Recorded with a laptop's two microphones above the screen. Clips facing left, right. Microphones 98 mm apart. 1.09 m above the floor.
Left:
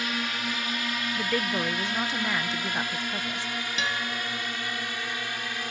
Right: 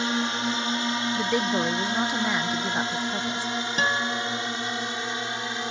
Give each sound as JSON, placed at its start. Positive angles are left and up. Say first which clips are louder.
{"t": 0.0, "sound": "a drone", "louder": "right 5 dB", "side_deg": -25}
{"t": 1.1, "sound": "a woman speaking", "louder": "right 3 dB", "side_deg": -15}
{"t": 3.8, "sound": "a guitar", "louder": "right 6 dB", "side_deg": -40}